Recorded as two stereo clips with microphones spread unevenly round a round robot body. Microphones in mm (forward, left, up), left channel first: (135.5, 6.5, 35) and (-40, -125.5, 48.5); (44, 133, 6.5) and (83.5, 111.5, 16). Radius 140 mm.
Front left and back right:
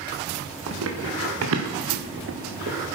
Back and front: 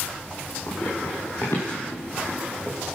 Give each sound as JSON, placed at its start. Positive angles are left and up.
{"t": 0.7, "sound": "running footsteps", "azimuth_deg": -140, "distance_m": 3.0}